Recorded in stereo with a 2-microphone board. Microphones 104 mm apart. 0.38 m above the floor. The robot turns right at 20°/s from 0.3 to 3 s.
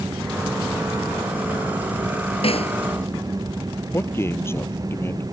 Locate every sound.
2.4 s a snare drum: 70° left (ahead or behind); by 2.8 s 75° left (ahead or behind)
3.9 s a man speaking: 25° left (ahead or behind)